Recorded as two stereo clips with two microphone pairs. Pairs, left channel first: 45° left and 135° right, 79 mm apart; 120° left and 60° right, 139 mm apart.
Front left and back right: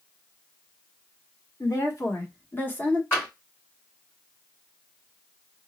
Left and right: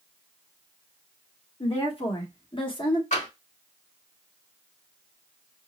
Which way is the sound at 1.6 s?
85° left.